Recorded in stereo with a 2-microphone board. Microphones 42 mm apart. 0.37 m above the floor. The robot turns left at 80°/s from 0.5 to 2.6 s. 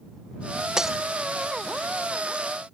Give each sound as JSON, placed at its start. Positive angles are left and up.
{"t": 0.8, "sound": "breaking glass", "side_deg": -20}